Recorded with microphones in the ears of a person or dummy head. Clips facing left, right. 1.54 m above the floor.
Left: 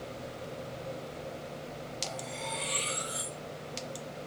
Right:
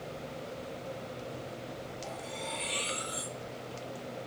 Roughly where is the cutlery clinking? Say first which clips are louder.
Left 1 dB; centre.